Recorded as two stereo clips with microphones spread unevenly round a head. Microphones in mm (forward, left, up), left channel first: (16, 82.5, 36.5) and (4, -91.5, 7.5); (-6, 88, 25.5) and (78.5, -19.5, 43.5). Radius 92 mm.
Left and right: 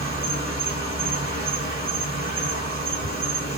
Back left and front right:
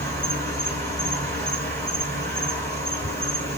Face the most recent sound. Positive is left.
turn(degrees=-65)